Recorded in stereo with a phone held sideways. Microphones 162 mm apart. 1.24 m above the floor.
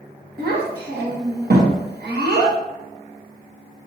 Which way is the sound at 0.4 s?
85° right.